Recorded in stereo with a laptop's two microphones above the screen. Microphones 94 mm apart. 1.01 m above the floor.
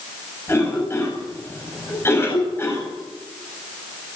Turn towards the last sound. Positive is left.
turn(degrees=25)  # may be behind; listen again after turning